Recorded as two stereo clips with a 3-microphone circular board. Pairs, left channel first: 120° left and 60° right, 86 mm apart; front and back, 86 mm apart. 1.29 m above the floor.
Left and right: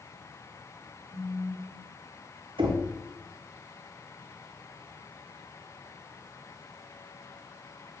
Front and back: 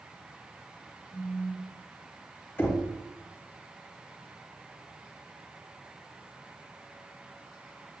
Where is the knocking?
65° right, 0.5 m.